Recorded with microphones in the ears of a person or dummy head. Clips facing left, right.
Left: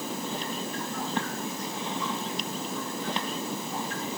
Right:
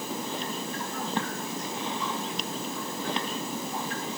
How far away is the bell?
No bell in this recording.